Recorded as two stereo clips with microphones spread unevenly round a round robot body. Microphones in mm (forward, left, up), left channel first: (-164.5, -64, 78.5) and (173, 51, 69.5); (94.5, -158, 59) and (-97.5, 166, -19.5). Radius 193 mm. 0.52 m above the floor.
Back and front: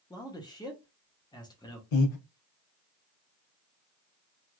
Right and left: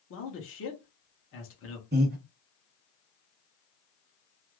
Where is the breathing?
175° right, 0.9 m.